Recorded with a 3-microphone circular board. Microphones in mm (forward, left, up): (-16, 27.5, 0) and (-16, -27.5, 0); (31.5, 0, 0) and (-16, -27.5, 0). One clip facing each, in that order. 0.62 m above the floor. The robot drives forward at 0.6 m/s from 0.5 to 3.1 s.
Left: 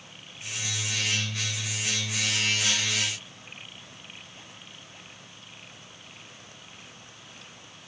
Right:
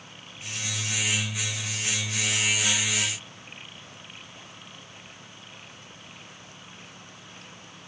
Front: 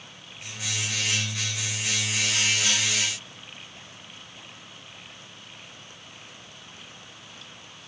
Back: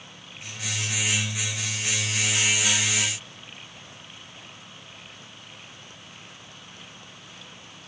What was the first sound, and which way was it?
Only background noise.